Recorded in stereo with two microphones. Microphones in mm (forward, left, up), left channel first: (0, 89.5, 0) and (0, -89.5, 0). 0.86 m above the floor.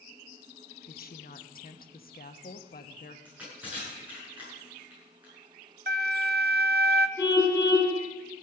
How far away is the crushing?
About 9 m.